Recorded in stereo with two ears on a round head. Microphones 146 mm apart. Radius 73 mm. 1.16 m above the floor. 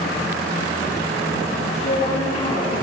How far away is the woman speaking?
About 3.5 m.